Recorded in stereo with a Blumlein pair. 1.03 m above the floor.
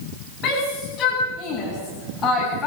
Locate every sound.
0.4 s a shout: 35° left, 9 m; by 2.7 s 15° left, 7.5 m